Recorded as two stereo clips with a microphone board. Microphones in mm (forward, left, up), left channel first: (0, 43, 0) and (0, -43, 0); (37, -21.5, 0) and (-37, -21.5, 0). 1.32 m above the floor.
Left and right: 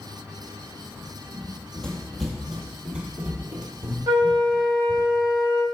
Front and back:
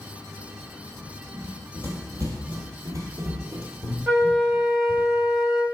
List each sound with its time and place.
1.3 s running footsteps: 165° left, 2.0 m; by 5.1 s 120° right, 2.0 m
4.1 s a flute: 120° right, 1.4 m